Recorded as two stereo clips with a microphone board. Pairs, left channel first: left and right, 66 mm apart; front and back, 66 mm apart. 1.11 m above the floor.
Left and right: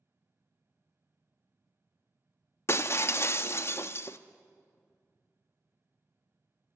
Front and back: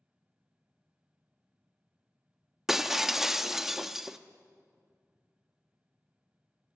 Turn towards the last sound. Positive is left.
turn(degrees=95)